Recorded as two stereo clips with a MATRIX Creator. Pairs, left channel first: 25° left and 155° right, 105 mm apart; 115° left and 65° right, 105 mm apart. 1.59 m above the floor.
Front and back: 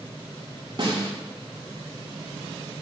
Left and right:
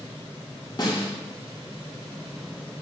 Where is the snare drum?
160° left, 3 m.